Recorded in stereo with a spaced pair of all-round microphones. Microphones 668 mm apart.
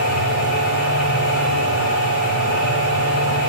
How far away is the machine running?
About 1.1 m.